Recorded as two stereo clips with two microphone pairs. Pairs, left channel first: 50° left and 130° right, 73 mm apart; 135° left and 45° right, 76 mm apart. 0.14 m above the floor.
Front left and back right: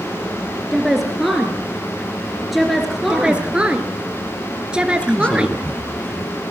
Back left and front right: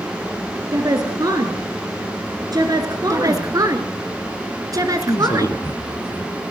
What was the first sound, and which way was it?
A woman speaking, 40° right.